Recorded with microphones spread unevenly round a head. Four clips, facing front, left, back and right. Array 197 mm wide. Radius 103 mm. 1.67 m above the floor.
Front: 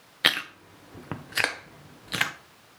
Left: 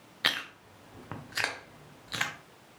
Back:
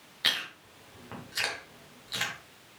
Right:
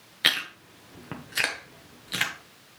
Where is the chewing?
20° right, 1.1 m.